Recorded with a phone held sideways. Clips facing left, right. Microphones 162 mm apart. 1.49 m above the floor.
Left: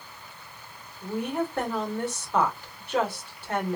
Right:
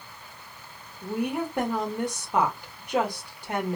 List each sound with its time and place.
1.0 s a woman speaking: 15° right (ahead or behind), 2.0 m